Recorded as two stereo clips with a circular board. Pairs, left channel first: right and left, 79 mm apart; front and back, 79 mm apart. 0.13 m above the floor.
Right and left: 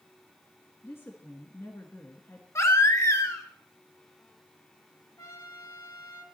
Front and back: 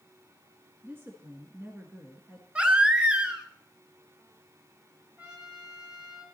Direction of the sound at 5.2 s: 110° right.